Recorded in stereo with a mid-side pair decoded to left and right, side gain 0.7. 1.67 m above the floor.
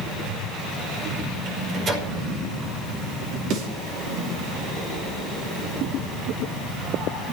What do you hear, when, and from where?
1.4 s a microwave: 35° right, 5 m
3.5 s a snare drum: 65° right, 5.5 m